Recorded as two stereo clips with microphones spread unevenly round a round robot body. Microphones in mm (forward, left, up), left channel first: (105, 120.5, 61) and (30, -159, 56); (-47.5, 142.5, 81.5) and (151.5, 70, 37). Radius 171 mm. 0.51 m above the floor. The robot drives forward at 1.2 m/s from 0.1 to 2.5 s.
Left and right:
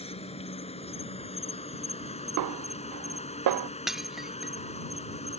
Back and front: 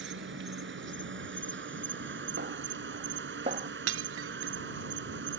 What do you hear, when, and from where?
0.0 s an insect: 5° left
2.4 s a snare drum: 80° right; by 3.7 s 95° right
3.9 s breaking glass: 15° right